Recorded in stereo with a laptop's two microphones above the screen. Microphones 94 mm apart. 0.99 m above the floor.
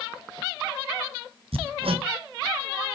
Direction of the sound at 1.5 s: 85° right.